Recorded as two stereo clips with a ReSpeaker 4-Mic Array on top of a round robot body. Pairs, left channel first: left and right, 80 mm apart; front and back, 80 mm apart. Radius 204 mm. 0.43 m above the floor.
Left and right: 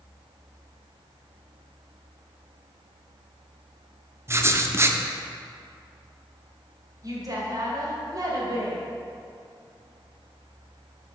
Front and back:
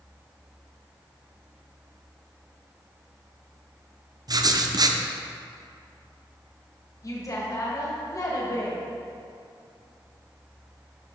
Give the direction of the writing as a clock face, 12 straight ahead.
5 o'clock.